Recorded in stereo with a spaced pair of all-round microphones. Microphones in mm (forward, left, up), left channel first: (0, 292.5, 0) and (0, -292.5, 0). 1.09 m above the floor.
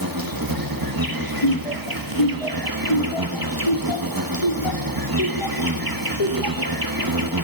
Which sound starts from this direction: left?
Laughter, at 1.4 s.